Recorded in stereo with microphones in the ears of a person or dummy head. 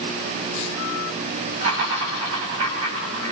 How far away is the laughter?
About 9 m.